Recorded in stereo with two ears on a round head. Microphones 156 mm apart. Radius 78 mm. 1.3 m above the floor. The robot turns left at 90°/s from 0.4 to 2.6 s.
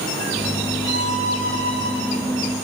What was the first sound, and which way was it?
A violin, 85° left.